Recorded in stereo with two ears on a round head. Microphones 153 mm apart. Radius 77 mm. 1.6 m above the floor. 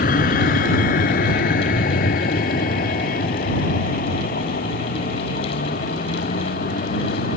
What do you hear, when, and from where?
0.0 s a vehicle: 55° left (ahead or behind)